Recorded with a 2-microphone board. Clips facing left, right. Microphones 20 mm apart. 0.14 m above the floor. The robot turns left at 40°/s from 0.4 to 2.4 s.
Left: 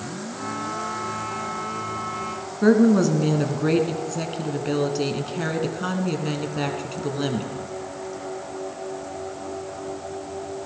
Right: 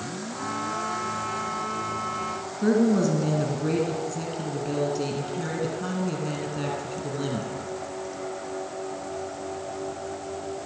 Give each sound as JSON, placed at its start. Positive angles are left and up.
{"t": 2.6, "sound": "a woman speaking", "side_deg": 30, "distance_m": 1.6}